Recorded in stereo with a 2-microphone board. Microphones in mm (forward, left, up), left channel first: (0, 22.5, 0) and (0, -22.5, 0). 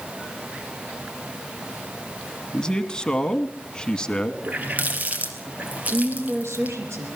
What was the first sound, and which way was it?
A man speaking, 20° left (ahead or behind).